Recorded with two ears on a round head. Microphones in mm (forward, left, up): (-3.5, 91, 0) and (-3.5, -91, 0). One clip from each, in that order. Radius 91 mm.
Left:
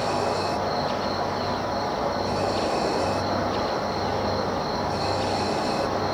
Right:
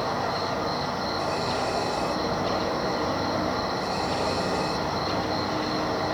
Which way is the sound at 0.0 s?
60° right (ahead or behind).